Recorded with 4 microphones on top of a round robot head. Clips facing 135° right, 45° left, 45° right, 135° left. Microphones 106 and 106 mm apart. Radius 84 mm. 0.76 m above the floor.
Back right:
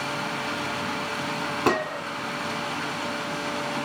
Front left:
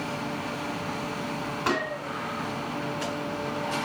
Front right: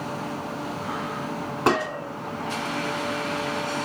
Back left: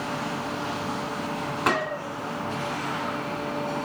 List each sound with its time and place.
1.7 s a gunshot: 100° right, 2.5 m